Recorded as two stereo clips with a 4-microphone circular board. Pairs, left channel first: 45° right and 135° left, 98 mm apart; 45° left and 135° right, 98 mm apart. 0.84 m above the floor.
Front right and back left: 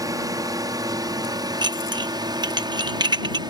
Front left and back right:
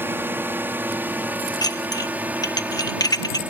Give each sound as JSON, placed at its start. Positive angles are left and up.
{"t": 0.0, "sound": "a drone", "azimuth_deg": 165}
{"t": 1.6, "sound": "dishes clattering", "azimuth_deg": 95}